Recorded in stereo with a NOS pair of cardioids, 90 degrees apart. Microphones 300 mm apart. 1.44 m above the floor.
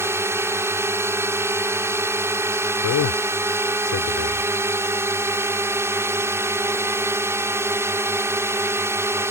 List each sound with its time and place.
0.0 s a drone: 10° right
2.8 s a man speaking: 70° left